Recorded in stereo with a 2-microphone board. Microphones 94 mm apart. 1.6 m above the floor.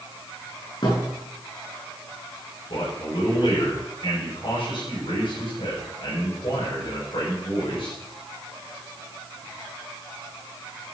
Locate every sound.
0.8 s a thud: 50° left (ahead or behind), 7 m
2.7 s a man speaking: 65° left (ahead or behind), 8 m